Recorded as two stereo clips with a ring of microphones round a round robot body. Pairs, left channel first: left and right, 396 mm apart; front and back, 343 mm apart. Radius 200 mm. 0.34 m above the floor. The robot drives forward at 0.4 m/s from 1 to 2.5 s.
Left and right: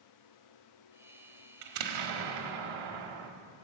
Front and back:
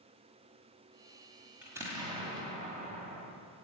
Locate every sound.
1.6 s an explosion: 95° right, 1.4 m; by 3.3 s 110° right, 1.5 m